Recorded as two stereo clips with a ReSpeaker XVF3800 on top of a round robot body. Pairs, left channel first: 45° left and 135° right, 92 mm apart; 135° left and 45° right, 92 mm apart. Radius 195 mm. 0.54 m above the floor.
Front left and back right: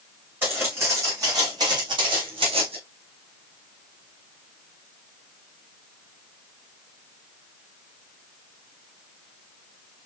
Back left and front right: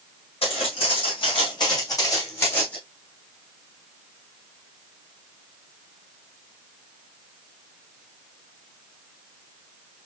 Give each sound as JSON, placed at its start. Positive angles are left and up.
{"t": 0.4, "sound": "footsteps", "azimuth_deg": 155, "distance_m": 3.5}